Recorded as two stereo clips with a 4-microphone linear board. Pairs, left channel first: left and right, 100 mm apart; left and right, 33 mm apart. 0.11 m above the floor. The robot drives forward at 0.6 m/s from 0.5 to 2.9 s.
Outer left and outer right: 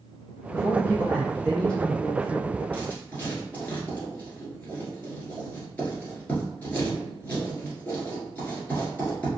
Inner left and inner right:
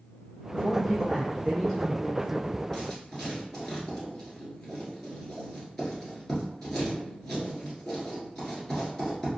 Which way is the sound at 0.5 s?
15° left (ahead or behind).